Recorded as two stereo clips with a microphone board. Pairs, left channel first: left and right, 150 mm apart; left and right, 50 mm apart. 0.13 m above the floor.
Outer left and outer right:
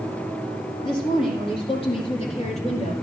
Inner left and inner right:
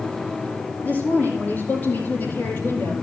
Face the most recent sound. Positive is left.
turn(degrees=55)  # may be behind; listen again after turning